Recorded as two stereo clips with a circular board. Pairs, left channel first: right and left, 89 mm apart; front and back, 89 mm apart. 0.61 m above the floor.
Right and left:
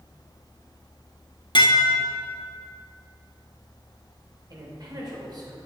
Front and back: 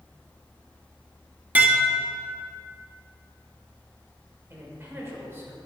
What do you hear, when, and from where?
1.6 s dishes clattering: 110° right, 0.8 m
4.5 s a man speaking: 125° left, 2 m